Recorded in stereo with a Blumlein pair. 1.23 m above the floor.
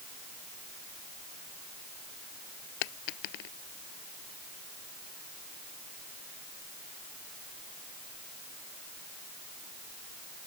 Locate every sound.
2.8 s a dropped coin: 45° left